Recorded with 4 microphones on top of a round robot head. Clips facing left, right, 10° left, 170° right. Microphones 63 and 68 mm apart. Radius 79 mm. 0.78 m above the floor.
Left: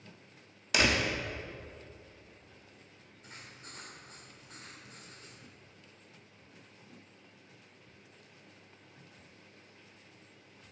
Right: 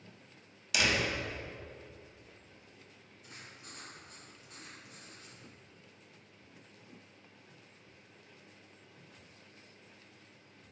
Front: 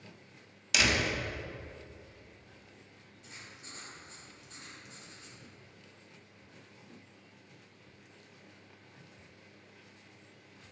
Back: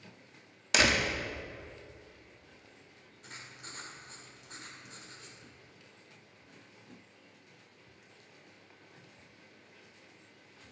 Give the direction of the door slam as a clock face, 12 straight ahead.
7 o'clock.